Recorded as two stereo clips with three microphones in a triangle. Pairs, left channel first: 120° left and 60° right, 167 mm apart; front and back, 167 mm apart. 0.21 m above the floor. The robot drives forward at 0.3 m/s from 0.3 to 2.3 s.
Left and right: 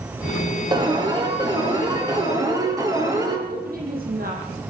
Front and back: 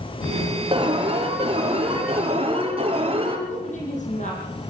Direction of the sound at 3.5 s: 40° right.